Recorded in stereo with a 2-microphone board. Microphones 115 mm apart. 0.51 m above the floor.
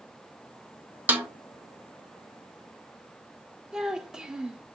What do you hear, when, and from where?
1.1 s a snare drum: 15° right (ahead or behind), 0.6 m
3.7 s a child speaking: 5° right (ahead or behind), 0.5 m